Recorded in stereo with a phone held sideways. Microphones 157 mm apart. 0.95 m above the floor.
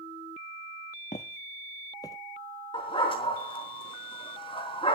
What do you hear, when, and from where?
1.1 s footsteps: 50° left (ahead or behind), 1.4 m; by 2.2 s 20° left (ahead or behind), 1.4 m
2.7 s a dog barking: 35° left (ahead or behind), 4 m